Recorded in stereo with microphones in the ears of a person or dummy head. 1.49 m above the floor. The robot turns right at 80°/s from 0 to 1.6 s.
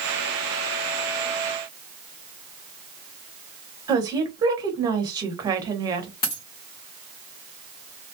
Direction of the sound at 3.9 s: 25° right (ahead or behind).